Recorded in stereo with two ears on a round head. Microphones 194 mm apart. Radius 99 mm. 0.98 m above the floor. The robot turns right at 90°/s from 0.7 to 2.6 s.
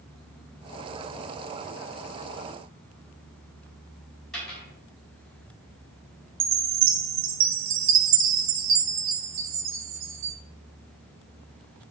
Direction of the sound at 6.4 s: 60° right (ahead or behind).